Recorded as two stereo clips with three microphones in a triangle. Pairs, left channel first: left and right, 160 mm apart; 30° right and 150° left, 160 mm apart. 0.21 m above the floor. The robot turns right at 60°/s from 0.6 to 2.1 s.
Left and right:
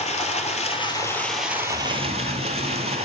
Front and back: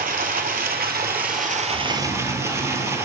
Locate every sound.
0.0 s running water: 135° left, 1.0 m; by 3.0 s 135° right, 1.0 m
1.6 s snoring: 75° left, 5 m; by 3.0 s 100° left, 5 m